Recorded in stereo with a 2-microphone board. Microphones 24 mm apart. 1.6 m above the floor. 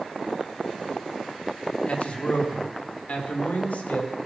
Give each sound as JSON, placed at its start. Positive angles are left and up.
{"t": 1.9, "sound": "a man speaking", "side_deg": 55, "distance_m": 3.5}